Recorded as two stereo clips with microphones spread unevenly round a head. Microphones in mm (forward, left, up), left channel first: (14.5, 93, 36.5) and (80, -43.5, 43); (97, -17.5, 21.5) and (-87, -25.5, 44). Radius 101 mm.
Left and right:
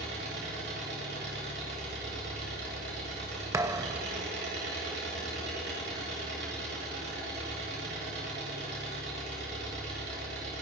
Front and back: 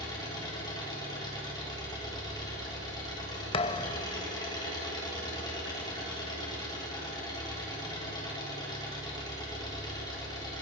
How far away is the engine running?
About 9 m.